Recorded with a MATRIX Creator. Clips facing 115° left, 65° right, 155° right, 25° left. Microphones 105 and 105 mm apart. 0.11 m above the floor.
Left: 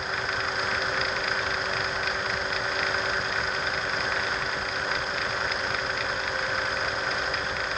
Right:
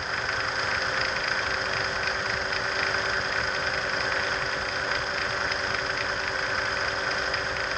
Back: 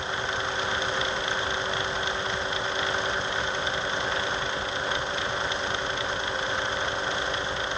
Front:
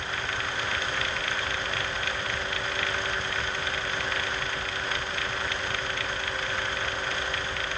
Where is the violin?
No violin in this recording.